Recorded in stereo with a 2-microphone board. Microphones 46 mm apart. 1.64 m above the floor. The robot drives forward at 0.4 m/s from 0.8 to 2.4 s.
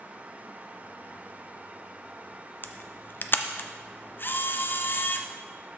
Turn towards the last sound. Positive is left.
turn(degrees=45)  # may be behind; listen again after turning